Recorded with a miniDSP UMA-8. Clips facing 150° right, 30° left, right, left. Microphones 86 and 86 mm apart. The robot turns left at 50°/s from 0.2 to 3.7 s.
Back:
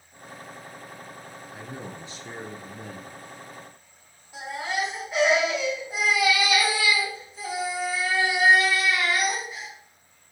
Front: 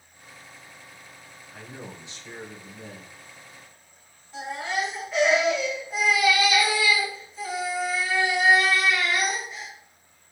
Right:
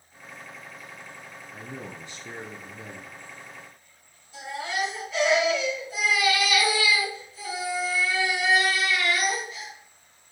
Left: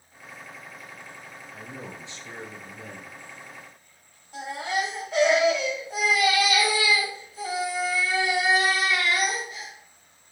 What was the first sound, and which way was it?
A man speaking, 85° right.